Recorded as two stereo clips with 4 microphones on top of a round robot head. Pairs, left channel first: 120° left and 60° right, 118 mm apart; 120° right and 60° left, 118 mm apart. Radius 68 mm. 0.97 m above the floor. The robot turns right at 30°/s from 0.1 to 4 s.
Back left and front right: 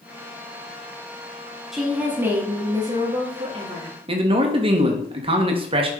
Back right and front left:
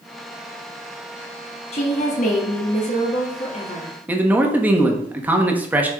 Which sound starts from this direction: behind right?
A woman speaking, at 1.7 s.